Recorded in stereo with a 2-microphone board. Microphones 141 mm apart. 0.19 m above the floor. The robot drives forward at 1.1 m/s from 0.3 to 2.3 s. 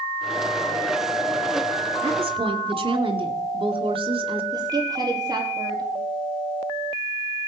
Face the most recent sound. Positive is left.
turn(degrees=-30)  # may be behind; listen again after turning